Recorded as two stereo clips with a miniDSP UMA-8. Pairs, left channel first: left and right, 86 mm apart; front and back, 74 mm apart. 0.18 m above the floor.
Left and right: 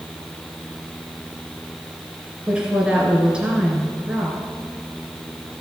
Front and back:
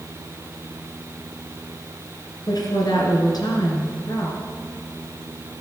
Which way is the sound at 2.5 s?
10° right.